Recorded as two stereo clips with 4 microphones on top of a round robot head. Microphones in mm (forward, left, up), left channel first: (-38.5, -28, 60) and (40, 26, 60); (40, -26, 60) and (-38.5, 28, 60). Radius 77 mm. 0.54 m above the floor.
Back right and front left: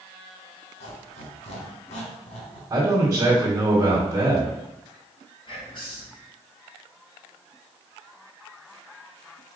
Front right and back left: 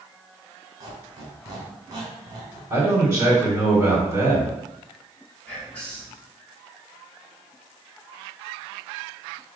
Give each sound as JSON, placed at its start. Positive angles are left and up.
{"t": 0.8, "sound": "a squeak", "azimuth_deg": -160, "distance_m": 1.8}
{"t": 2.7, "sound": "a man speaking", "azimuth_deg": 95, "distance_m": 1.8}
{"t": 5.5, "sound": "whispering", "azimuth_deg": -110, "distance_m": 2.5}